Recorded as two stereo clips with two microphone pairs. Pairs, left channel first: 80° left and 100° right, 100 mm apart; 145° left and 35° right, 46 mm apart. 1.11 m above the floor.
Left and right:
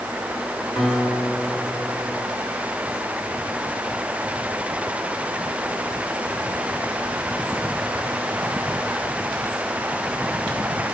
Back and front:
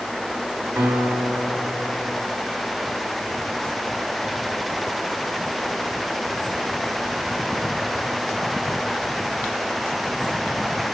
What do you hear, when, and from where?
0.8 s a guitar: 15° right, 3 m